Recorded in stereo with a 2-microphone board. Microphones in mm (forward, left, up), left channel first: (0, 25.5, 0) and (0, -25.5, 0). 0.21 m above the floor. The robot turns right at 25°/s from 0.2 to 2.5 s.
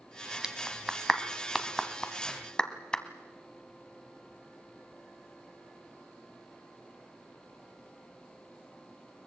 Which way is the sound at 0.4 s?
10° right (ahead or behind).